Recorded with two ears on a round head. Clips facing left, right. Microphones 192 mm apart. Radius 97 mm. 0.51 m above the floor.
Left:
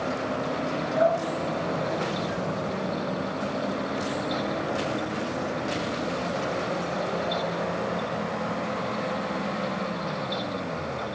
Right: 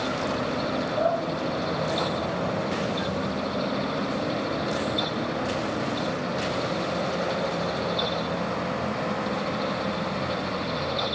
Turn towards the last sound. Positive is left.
turn(degrees=75)  # may be behind; listen again after turning